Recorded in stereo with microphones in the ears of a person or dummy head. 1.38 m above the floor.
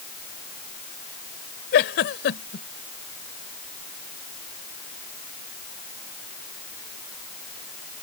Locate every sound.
1.7 s a giggle: 60° left (ahead or behind)